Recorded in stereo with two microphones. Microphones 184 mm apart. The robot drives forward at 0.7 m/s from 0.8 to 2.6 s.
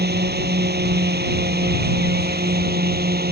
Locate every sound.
0.0 s a drone: 55° right (ahead or behind)